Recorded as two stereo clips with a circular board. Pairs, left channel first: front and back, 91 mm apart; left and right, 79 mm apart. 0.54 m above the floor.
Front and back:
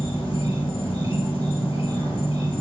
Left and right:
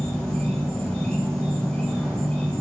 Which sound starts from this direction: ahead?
An insect, at 0.0 s.